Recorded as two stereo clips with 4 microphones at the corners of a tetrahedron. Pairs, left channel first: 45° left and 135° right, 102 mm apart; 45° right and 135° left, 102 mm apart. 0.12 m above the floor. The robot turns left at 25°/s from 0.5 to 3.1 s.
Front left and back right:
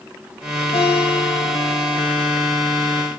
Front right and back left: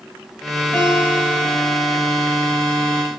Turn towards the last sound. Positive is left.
turn(degrees=-30)